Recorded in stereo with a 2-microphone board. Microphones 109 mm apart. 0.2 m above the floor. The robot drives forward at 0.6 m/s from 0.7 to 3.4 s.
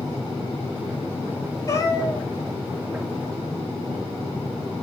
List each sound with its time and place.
1.7 s a cat meowing: 30° left (ahead or behind), 2.5 m; by 2.3 s 35° left (ahead or behind), 2.5 m